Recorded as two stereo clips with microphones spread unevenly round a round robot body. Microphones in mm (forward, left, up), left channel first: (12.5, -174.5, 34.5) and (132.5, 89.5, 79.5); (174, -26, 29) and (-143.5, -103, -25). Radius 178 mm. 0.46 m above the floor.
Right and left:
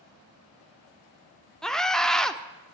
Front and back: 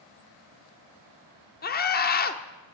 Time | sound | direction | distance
1.6 | a scream | 40° right | 1.4 m